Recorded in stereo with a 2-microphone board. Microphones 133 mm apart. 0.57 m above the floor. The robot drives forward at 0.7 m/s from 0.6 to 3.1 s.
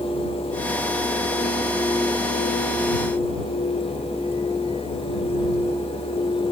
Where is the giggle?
I don't hear a giggle.